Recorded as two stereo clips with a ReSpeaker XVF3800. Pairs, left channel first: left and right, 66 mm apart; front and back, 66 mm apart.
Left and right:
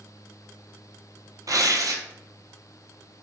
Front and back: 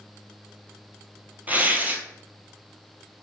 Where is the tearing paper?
115° right, 0.8 m.